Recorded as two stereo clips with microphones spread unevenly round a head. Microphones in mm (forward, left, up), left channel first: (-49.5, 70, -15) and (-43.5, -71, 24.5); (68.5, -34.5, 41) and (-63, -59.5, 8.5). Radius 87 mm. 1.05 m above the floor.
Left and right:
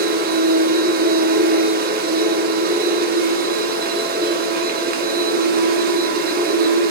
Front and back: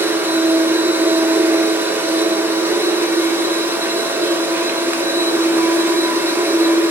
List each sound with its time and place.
0.0 s a machine running: 90° right, 1.6 m